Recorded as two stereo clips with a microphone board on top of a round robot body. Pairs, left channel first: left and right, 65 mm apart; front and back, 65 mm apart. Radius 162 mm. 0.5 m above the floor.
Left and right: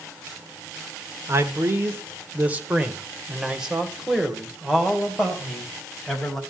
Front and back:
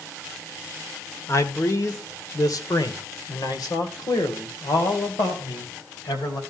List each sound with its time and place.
1.3 s a man speaking: 40° right, 1.8 m; by 6.4 s 5° left, 3.5 m